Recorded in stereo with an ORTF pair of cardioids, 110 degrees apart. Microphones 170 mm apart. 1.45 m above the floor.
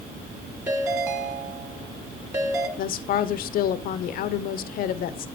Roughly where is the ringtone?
Ahead.